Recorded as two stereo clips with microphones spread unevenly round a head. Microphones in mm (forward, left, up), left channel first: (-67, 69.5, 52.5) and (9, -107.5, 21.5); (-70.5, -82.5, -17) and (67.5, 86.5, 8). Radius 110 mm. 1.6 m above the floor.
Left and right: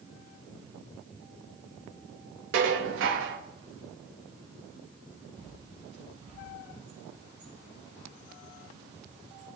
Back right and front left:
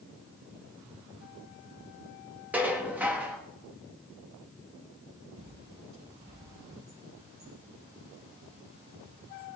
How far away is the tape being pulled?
No tape being pulled in this recording.